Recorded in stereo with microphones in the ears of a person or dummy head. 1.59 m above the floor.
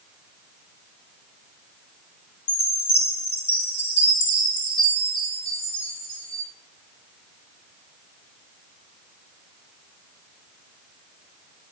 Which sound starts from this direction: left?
A chime, at 2.5 s.